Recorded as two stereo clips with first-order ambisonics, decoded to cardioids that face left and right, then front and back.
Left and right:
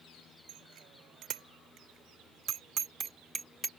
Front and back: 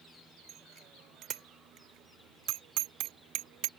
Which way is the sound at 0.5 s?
125° right.